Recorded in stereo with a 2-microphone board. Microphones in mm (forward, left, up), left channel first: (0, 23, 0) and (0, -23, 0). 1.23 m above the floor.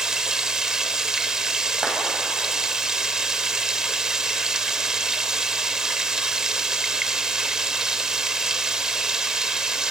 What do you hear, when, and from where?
0.0 s running water: 15° right (ahead or behind), 1.0 m
1.8 s a clap: 15° right (ahead or behind), 8 m